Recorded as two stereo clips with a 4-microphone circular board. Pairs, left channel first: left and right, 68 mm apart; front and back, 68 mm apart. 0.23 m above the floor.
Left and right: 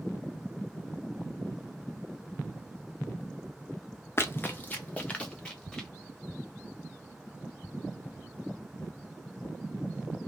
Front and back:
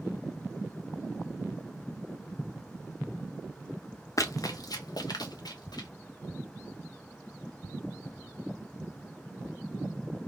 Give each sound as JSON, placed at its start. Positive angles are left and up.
{"t": 4.2, "sound": "running footsteps", "azimuth_deg": 35, "distance_m": 0.6}